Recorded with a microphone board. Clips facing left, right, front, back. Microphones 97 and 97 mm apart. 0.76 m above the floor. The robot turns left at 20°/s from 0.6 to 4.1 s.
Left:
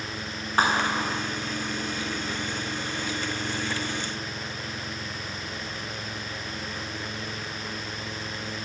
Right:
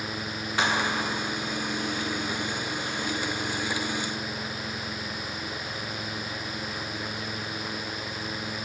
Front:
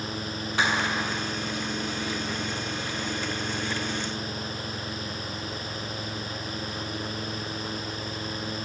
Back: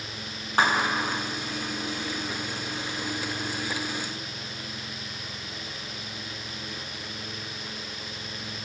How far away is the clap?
About 7.5 m.